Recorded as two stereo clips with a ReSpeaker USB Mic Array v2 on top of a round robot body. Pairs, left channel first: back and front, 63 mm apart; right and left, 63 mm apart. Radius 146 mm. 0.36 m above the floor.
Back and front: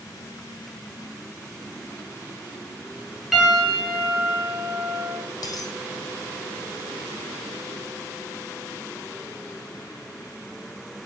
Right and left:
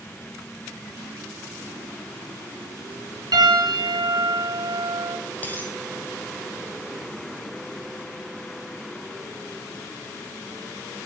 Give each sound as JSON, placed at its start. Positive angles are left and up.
{"t": 3.3, "sound": "a piano", "azimuth_deg": 85, "distance_m": 4.0}
{"t": 5.4, "sound": "a dropped coin", "azimuth_deg": -155, "distance_m": 0.7}